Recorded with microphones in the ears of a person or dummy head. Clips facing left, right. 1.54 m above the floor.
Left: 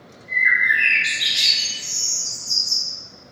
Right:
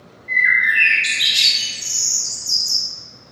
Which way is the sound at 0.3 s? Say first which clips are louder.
Right 2 dB; 30° right (ahead or behind).